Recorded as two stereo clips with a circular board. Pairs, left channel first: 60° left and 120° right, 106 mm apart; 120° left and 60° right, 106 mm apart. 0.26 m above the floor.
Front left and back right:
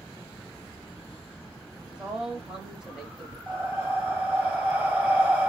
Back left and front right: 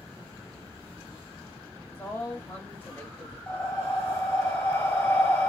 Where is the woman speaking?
165° left, 1.1 m.